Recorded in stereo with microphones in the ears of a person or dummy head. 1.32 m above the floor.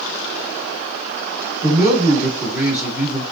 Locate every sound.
1.6 s a man speaking: 5° right (ahead or behind), 3.5 m